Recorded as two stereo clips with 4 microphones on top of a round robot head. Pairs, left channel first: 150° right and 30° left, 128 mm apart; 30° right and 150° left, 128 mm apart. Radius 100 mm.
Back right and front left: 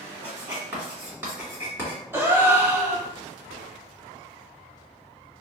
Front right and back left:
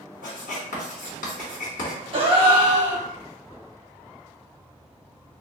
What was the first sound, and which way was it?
Writing, 45° right.